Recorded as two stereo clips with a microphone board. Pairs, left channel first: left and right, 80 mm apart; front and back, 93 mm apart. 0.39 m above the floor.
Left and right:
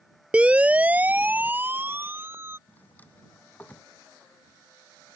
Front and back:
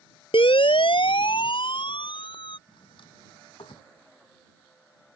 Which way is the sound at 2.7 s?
20° left.